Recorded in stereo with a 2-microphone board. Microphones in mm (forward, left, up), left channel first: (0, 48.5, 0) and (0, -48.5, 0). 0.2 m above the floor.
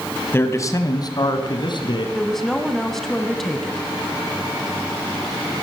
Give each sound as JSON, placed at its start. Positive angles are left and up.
{"t": 0.3, "sound": "a man speaking", "side_deg": 25, "distance_m": 1.3}
{"t": 2.1, "sound": "a woman speaking", "side_deg": 5, "distance_m": 1.3}